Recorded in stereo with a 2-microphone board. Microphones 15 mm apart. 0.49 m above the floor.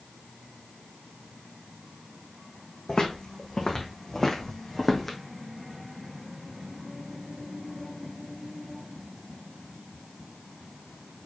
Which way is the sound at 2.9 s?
50° left (ahead or behind).